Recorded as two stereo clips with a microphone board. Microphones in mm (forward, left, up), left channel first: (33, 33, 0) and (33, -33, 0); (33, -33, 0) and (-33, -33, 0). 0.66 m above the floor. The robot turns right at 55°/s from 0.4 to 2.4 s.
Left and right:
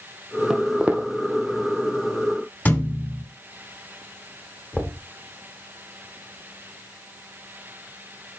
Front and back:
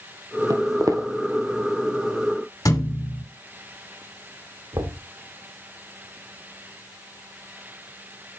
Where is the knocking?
Straight behind, 1.6 m.